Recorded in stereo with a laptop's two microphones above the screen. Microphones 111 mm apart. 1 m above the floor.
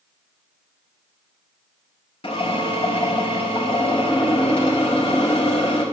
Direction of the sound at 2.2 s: 65° left (ahead or behind).